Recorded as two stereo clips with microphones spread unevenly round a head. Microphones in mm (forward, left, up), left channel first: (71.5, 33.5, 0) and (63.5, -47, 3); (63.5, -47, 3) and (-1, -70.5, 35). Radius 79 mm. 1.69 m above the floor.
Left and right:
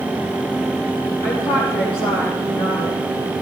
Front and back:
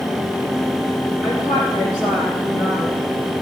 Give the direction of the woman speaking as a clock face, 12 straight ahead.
8 o'clock.